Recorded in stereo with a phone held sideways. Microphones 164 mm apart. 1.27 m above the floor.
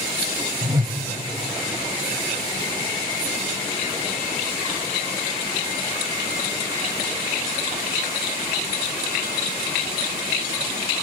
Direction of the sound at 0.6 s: 20° right (ahead or behind).